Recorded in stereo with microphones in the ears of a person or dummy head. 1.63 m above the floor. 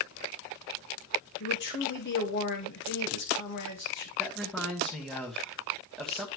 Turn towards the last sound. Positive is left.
turn(degrees=0)  # may be behind; listen again after turning